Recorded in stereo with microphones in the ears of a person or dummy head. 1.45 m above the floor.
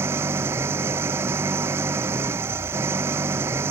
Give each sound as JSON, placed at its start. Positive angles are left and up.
{"t": 0.0, "sound": "an engine running", "side_deg": -15}